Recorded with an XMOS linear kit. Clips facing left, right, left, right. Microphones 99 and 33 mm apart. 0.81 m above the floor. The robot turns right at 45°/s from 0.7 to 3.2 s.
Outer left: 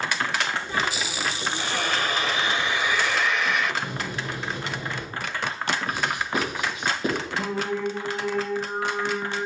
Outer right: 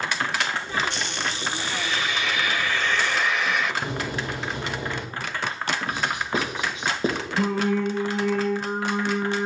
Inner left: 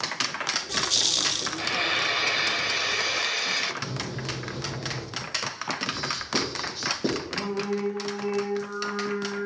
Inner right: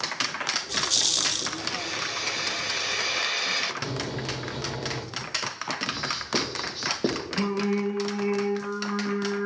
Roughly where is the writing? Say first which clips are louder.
Even, even; right.